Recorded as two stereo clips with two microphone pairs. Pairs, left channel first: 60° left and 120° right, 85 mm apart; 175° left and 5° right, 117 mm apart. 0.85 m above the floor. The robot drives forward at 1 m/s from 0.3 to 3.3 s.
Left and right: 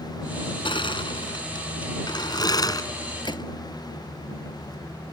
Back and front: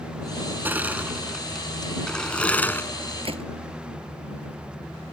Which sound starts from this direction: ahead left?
A gunshot, at 3.2 s.